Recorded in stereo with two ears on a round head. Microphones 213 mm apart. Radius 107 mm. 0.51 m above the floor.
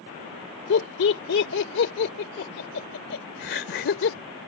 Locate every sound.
0.7 s laughter: 50° left (ahead or behind)